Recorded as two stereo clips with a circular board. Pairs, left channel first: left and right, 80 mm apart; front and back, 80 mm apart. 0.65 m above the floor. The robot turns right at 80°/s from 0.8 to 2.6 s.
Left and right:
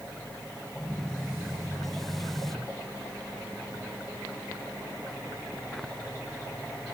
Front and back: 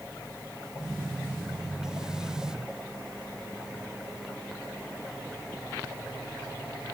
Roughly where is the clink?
No clink in this recording.